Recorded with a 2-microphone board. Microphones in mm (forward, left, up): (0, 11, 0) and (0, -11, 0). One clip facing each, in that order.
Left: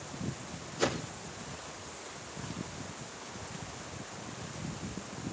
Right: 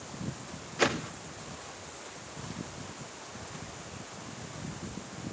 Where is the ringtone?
I don't hear a ringtone.